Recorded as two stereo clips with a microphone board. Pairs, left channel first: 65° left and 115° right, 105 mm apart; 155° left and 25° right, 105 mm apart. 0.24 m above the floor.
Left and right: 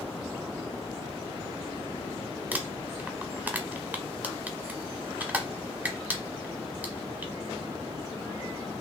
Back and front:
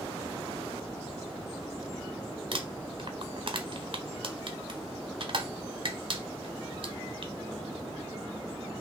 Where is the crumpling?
40° right, 1.0 m.